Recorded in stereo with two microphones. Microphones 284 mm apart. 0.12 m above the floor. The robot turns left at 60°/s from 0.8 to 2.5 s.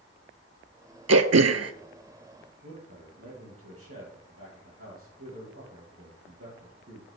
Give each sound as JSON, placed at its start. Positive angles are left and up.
{"t": 1.1, "sound": "throat clearing", "azimuth_deg": -75, "distance_m": 0.6}
{"t": 2.6, "sound": "a man speaking", "side_deg": -55, "distance_m": 3.5}